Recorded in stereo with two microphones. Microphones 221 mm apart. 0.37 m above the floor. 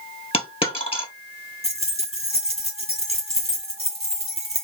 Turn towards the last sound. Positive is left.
turn(degrees=-30)  # may be behind; listen again after turning